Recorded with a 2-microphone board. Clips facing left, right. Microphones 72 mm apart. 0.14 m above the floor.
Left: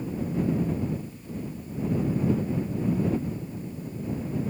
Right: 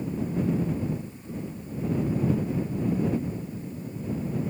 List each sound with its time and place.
Only background noise.